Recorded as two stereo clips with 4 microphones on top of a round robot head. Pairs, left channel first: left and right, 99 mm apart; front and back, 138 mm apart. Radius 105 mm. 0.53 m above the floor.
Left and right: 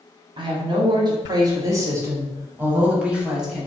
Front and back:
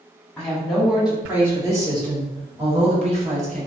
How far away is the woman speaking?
About 1.6 m.